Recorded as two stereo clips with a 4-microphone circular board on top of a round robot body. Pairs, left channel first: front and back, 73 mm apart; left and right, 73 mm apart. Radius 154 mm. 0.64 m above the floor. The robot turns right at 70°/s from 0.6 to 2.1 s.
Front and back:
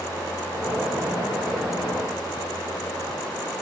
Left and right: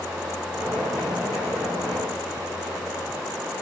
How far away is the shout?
No shout in this recording.